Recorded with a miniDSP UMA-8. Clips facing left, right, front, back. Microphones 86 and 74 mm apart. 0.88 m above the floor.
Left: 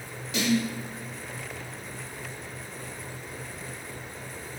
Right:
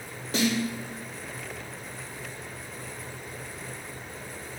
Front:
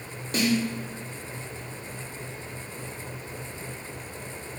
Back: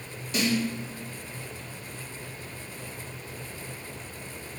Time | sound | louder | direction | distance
0.3 | a snare drum | even, front 2 dB | 45° right | 3 m